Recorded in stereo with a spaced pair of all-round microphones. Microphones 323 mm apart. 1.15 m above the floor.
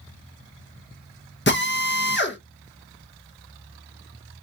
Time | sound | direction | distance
1.5 | a drill | 35° left (ahead or behind) | 0.9 m